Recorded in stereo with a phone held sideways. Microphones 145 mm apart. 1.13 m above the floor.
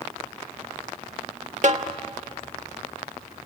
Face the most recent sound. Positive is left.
turn(degrees=-55)  # may be behind; listen again after turning